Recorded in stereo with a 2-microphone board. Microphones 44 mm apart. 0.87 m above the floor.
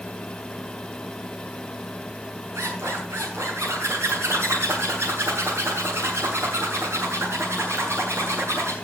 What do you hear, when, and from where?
2.5 s a zipper: 80° right, 8 m